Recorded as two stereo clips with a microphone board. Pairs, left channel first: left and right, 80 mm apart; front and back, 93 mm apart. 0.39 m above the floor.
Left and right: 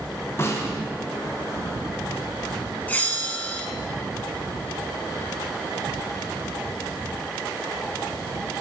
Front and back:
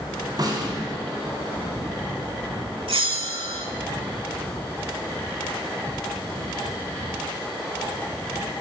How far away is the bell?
About 1.2 m.